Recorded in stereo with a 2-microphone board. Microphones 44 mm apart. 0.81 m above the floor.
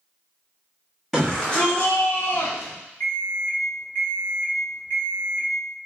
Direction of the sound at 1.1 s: 5° left (ahead or behind).